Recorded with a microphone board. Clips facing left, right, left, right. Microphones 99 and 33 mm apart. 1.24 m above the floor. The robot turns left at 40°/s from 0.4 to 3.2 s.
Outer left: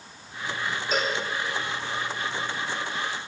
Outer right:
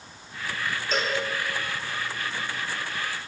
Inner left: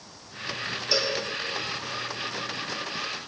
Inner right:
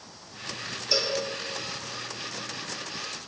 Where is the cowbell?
5° left (ahead or behind), 3 m; by 1.2 s 5° right (ahead or behind), 3 m.